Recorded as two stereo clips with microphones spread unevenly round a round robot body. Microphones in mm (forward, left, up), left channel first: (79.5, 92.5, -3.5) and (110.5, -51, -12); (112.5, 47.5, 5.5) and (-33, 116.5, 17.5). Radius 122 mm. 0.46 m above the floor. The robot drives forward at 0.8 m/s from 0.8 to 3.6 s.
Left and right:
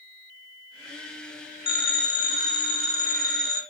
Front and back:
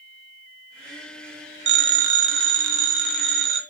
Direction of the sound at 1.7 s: 170° left.